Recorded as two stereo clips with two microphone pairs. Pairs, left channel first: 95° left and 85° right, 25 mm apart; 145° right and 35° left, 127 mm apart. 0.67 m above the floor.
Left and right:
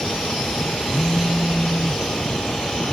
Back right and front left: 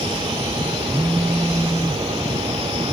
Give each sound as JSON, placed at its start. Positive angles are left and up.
{"t": 0.9, "sound": "a phone buzzing", "azimuth_deg": 105}